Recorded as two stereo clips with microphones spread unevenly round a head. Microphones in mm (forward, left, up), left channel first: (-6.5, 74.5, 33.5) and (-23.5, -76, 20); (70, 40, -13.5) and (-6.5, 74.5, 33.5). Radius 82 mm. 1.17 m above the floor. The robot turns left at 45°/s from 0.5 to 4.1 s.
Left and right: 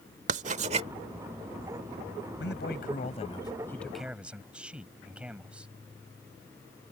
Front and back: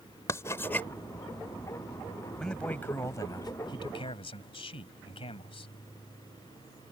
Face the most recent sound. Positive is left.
turn(degrees=-15)